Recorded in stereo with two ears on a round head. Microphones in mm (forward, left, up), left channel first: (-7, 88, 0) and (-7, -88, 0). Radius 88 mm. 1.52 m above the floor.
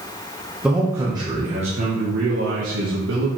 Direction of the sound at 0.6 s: 5° right (ahead or behind).